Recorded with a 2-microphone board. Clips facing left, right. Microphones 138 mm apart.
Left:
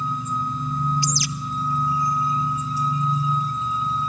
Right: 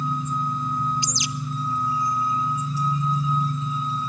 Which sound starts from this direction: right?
A bird, at 1.0 s.